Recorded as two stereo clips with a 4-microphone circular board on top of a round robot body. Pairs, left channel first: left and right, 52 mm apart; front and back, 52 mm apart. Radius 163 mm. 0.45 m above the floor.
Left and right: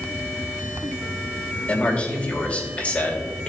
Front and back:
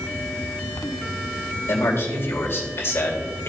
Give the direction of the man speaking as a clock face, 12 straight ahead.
11 o'clock.